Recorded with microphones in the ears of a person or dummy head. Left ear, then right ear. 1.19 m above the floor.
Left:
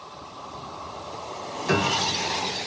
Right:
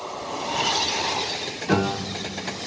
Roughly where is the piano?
Left.